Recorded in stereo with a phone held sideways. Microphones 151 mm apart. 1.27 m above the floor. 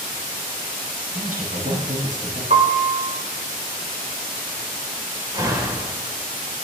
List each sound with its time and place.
1.1 s a man speaking: 60° right (ahead or behind), 9 m
2.5 s a piano: 50° right (ahead or behind), 4 m
5.3 s a door slam: 25° right (ahead or behind), 4.5 m